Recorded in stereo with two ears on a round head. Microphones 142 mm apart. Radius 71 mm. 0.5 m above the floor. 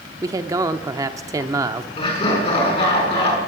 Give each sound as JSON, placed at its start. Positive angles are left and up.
{"t": 0.2, "sound": "a man speaking", "side_deg": -20, "distance_m": 0.7}
{"t": 2.0, "sound": "laughter", "side_deg": 35, "distance_m": 6.5}